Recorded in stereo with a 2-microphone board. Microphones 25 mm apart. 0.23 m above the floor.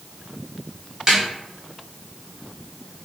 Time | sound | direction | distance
1.1 | a snare drum | 25° right (ahead or behind) | 1.0 m